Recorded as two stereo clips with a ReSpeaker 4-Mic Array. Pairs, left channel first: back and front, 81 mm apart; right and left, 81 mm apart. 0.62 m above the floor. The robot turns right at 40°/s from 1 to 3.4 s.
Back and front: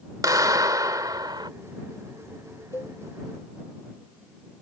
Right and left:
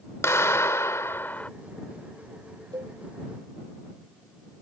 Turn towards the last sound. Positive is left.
turn(degrees=150)